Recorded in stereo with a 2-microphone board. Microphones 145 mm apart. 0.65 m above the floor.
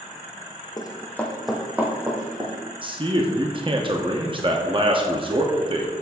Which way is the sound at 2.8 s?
35° right (ahead or behind).